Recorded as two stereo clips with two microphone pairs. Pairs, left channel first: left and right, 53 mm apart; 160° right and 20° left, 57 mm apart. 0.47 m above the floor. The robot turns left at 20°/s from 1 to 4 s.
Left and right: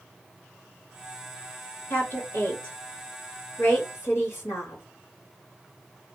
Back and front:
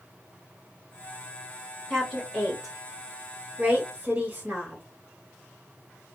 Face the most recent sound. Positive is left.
turn(degrees=75)